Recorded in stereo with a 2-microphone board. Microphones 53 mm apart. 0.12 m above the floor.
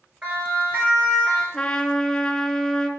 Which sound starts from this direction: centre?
A trumpet, at 1.5 s.